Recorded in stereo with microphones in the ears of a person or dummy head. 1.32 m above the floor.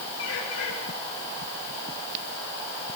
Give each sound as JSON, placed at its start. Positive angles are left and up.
{"t": 0.2, "sound": "a bird", "side_deg": 85, "distance_m": 7.5}